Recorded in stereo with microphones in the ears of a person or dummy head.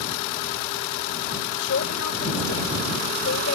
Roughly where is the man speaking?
Left.